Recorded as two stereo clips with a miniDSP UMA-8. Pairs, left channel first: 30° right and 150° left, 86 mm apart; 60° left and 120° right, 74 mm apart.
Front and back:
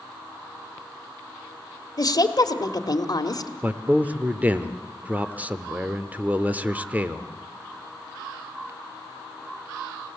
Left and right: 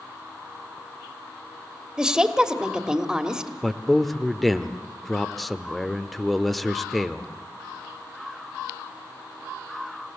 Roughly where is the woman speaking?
Ahead right.